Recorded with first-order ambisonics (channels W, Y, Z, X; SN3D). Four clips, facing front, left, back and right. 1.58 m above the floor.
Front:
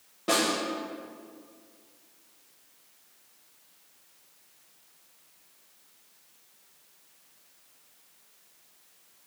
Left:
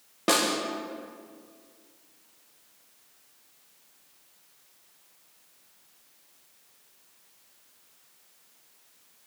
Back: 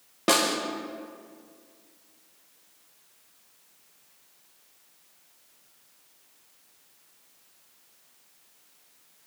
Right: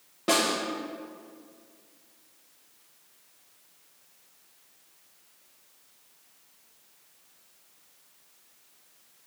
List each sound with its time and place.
0.3 s a snare drum: 150° left, 0.8 m